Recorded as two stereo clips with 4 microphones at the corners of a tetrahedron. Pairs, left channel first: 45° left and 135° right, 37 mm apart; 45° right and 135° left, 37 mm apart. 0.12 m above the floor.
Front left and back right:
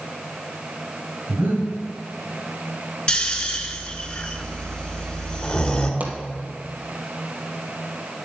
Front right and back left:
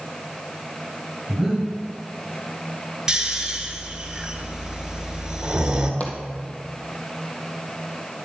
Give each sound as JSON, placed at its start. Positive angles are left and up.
{"t": 1.3, "sound": "breathing", "azimuth_deg": -125, "distance_m": 3.5}
{"t": 3.1, "sound": "snoring", "azimuth_deg": 80, "distance_m": 1.3}
{"t": 6.0, "sound": "a pop", "azimuth_deg": -90, "distance_m": 1.6}